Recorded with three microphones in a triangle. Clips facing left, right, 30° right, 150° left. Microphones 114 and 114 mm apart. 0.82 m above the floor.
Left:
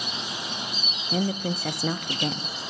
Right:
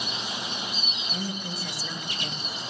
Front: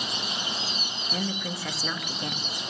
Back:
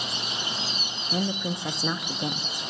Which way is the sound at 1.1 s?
85° left.